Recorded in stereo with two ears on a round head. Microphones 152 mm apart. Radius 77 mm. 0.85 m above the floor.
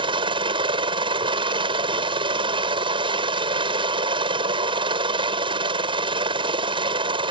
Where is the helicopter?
30° right (ahead or behind).